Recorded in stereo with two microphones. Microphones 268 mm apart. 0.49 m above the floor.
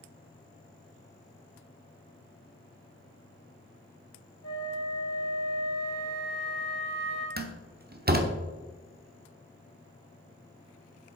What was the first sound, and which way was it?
A flute, 60° left (ahead or behind).